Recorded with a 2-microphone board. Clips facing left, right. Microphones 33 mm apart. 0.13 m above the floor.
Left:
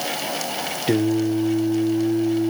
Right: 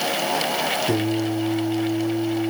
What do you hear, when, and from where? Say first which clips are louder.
0.9 s singing: left 3 dB; 40° left (ahead or behind), 1.0 m